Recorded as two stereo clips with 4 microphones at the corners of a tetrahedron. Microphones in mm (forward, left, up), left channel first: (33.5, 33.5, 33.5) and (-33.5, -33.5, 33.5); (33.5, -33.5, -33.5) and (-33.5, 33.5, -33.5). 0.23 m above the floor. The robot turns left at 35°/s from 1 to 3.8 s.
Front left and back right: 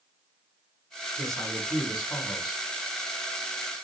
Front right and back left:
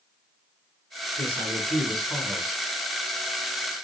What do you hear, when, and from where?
1.2 s a man speaking: 130° left, 1.7 m; by 2.6 s 80° left, 1.7 m